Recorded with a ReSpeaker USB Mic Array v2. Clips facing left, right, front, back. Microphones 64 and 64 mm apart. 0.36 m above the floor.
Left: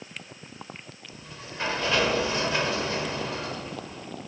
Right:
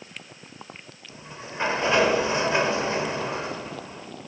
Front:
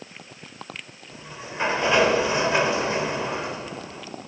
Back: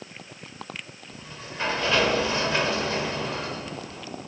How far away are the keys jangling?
I don't hear keys jangling.